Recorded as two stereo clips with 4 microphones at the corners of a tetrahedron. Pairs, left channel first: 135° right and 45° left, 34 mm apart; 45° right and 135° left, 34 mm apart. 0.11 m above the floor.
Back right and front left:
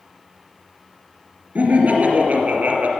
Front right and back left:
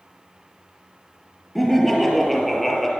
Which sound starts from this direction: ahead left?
Laughter, at 1.6 s.